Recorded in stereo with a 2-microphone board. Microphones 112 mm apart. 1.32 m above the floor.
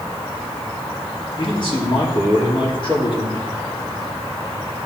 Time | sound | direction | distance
1.4 | a man speaking | 55° left (ahead or behind) | 4 m